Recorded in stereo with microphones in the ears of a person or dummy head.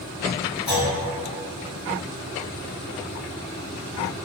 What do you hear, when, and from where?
0.7 s a clunk: 20° left (ahead or behind), 1.9 m